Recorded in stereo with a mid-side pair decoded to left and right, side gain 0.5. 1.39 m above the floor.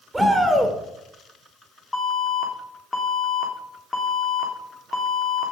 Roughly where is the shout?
Ahead.